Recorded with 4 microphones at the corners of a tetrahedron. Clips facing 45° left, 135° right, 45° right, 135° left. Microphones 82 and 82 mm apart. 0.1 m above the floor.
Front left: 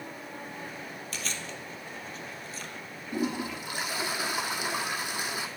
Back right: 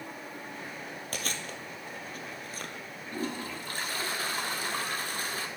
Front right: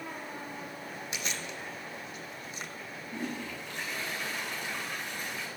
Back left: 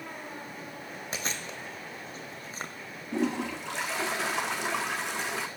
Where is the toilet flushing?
125° left, 1.1 m.